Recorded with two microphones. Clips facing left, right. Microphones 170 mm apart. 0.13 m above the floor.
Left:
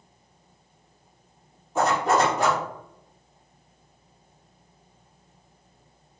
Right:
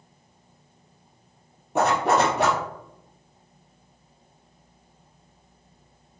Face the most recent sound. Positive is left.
turn(degrees=-70)  # may be behind; listen again after turning